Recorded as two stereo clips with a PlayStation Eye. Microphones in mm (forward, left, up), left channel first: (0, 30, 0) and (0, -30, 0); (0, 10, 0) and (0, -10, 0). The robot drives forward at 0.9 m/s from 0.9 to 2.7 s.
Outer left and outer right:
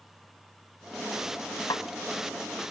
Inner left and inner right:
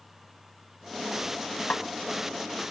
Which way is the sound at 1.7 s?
80° left.